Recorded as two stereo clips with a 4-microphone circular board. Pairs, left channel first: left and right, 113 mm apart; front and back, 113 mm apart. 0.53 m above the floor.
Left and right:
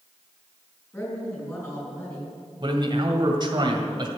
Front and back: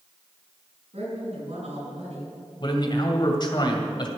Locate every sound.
0.9 s a woman speaking: 155° left, 6 m
2.6 s a man speaking: 45° right, 2 m